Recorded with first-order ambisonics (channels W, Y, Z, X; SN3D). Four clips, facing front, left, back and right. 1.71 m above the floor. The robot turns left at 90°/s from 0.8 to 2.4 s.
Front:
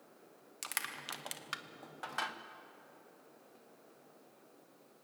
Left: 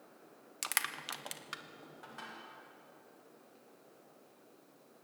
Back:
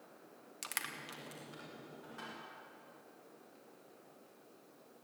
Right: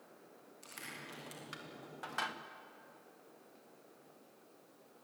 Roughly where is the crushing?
Left.